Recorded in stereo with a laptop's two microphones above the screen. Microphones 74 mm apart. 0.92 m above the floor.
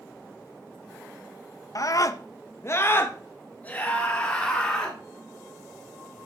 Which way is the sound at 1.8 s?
50° left (ahead or behind).